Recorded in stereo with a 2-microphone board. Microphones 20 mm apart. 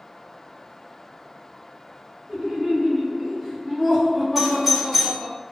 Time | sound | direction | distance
2.3 | laughter | 25° right (ahead or behind) | 1.6 m
4.3 | a doorbell | 10° right (ahead or behind) | 1.6 m